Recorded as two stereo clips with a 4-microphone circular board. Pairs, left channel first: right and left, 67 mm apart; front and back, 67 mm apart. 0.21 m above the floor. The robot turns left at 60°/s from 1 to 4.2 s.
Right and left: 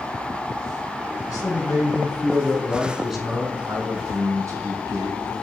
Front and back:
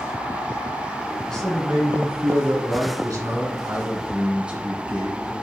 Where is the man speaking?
80° right, 1.9 m; by 5.3 s 105° left, 1.9 m.